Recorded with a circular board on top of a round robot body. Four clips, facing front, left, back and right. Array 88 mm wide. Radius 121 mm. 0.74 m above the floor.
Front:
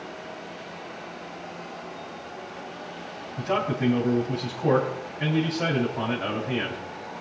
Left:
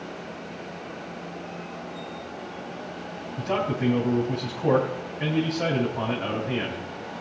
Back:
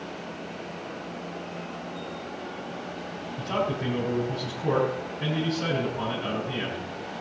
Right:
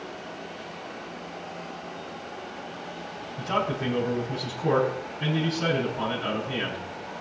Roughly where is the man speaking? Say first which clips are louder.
Left 1 dB, front 3 dB; ahead left.